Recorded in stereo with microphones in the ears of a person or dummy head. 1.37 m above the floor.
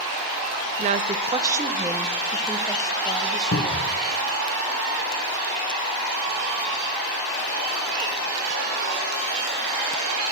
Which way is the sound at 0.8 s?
40° right (ahead or behind).